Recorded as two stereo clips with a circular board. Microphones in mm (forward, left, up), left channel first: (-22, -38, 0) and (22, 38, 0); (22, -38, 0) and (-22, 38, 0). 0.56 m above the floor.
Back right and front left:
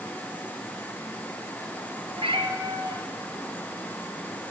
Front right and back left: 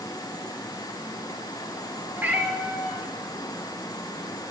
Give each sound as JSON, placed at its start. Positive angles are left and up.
{"t": 2.1, "sound": "a cat meowing", "azimuth_deg": 50, "distance_m": 3.5}